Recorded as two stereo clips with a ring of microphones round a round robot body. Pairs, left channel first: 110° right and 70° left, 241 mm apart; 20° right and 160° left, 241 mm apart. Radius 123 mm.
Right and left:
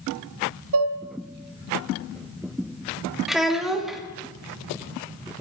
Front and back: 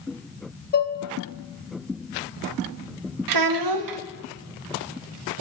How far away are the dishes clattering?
About 0.6 m.